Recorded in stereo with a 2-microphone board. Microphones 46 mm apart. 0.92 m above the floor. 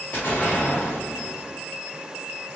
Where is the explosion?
45° left (ahead or behind), 1.2 m.